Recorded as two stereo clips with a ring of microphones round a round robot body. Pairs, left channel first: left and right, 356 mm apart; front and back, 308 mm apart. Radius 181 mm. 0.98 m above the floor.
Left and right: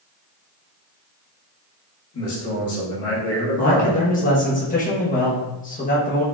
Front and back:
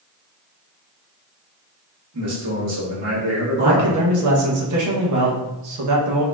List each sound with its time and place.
2.1 s a man speaking: 140° left, 1.8 m
3.6 s a man speaking: 155° left, 1.1 m